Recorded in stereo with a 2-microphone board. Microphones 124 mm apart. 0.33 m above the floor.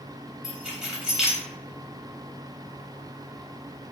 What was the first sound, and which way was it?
Keys jangling, 5° right (ahead or behind).